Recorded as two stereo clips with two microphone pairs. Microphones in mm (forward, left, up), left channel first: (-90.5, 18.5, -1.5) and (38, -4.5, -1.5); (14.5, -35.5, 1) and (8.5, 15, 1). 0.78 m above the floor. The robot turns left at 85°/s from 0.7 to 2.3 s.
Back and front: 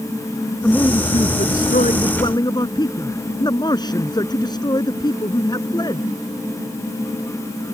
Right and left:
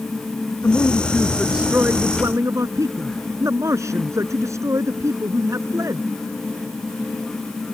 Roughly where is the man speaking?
Behind right.